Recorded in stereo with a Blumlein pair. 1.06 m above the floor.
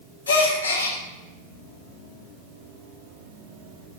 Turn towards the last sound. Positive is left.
turn(degrees=70)